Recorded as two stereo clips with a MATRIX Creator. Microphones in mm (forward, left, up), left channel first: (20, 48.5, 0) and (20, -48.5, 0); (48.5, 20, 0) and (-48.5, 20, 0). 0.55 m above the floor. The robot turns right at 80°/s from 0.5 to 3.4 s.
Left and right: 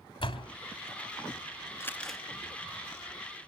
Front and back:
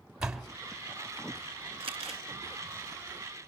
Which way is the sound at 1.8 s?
150° left.